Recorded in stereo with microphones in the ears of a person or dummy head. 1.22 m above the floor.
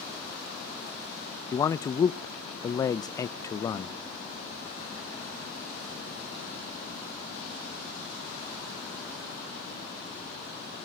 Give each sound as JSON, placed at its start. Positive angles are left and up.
{"t": 1.5, "sound": "a man speaking", "side_deg": 25, "distance_m": 0.5}